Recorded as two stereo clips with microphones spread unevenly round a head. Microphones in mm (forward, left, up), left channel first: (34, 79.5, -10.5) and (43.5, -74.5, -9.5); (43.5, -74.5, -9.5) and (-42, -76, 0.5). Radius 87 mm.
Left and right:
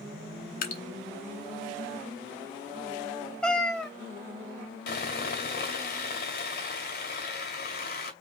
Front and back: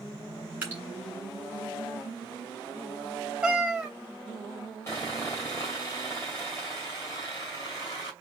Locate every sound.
0.6 s dripping: 110° left, 1.0 m
3.4 s a cat meowing: 170° left, 1.0 m
4.9 s sawing: 75° left, 1.8 m